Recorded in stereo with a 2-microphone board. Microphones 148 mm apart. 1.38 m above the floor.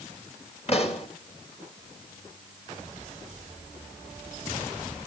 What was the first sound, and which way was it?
A pop, 40° left (ahead or behind).